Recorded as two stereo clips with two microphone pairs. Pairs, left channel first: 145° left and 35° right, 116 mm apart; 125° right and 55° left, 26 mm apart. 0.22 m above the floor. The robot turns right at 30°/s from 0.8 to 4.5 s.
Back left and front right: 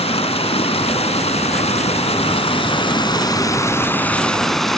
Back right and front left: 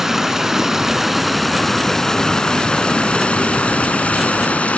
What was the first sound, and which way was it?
Running water, 125° left.